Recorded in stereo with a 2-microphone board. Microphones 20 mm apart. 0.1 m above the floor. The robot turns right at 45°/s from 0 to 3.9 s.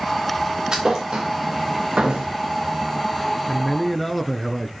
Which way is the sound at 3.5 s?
5° left (ahead or behind).